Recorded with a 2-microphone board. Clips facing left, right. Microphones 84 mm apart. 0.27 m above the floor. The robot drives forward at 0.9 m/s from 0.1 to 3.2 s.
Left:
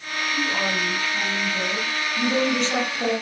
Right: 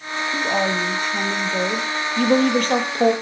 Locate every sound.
0.3 s a woman speaking: 75° right (ahead or behind), 5.5 m; by 1.9 s 80° right, 5.5 m
2.2 s a woman speaking: 55° right (ahead or behind), 5.5 m; by 3.1 s 45° right (ahead or behind), 6 m